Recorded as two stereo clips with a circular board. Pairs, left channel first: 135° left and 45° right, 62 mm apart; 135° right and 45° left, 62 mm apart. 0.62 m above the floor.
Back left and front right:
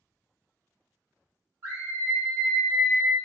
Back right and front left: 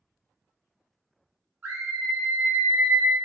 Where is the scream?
Straight ahead, 1.3 m; by 3.1 s 125° left, 0.7 m.